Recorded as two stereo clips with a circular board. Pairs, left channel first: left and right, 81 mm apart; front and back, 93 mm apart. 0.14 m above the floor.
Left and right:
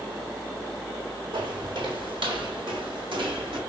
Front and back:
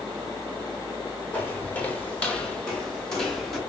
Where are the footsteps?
70° right, 3 m; by 3.6 s 90° right, 2.5 m.